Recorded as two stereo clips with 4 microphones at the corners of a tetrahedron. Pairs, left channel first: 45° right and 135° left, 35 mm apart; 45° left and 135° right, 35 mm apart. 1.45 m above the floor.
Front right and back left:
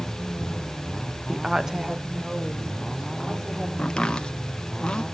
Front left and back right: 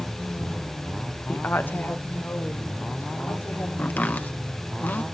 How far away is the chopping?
About 1.4 m.